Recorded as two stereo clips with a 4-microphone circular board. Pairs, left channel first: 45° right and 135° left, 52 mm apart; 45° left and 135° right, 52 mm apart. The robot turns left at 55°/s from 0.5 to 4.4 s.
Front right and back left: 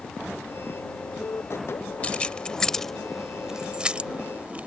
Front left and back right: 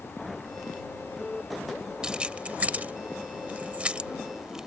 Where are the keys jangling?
75° right; by 4.7 s 155° left.